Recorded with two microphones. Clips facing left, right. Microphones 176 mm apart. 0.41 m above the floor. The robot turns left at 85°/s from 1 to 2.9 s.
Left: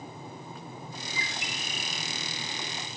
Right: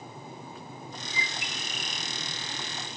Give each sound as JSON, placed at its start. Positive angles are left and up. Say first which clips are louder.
{"t": 1.1, "sound": "a bird", "louder": "even", "azimuth_deg": 65, "distance_m": 9.0}